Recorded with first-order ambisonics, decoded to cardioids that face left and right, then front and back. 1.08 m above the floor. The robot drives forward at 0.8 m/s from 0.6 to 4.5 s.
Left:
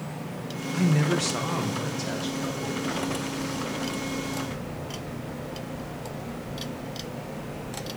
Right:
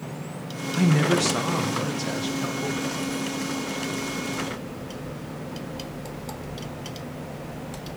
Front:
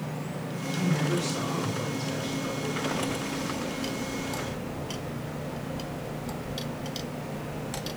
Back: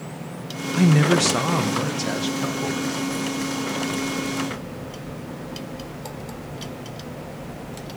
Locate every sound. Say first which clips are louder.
0.7 s a man speaking: right 4 dB, back 10 dB; 160° right, 0.6 m; by 2.8 s 175° right, 2 m